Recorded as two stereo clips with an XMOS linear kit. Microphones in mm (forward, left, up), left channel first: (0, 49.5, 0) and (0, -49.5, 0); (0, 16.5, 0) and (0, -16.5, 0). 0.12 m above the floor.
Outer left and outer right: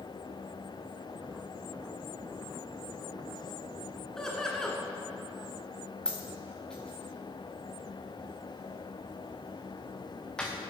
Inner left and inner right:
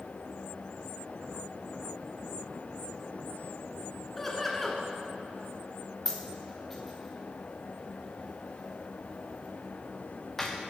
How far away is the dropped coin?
About 2 m.